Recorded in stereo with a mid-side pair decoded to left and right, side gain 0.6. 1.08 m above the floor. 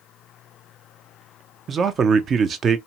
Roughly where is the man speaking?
Ahead right.